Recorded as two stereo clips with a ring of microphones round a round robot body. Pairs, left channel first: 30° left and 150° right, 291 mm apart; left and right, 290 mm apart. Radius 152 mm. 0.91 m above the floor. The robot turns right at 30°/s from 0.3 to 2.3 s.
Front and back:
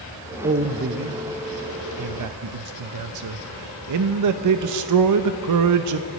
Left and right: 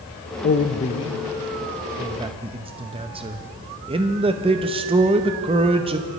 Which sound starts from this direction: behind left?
A man speaking, at 0.4 s.